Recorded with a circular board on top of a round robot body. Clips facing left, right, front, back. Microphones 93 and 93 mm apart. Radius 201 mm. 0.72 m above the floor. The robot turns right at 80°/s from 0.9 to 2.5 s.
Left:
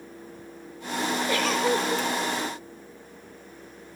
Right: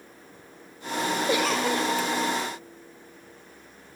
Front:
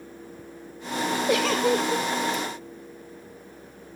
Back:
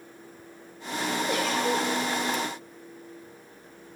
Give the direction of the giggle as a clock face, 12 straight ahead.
1 o'clock.